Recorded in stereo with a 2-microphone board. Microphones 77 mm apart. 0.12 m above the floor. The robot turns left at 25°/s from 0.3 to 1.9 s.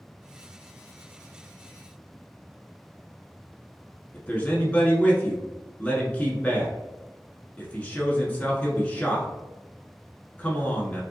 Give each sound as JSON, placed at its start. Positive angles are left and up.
{"t": 4.1, "sound": "a man speaking", "side_deg": 20, "distance_m": 1.1}